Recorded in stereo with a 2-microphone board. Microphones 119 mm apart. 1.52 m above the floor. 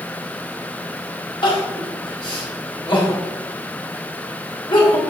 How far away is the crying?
About 3 m.